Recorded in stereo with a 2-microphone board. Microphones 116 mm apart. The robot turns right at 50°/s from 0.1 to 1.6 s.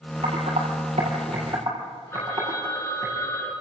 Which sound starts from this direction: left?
A phone ringing, at 2.1 s.